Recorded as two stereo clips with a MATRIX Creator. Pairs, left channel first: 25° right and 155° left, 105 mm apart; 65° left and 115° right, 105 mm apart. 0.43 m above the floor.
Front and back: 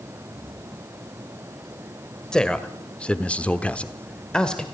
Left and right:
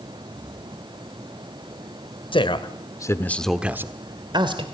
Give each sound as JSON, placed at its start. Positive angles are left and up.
{"t": 2.3, "sound": "a man speaking", "azimuth_deg": 60, "distance_m": 2.0}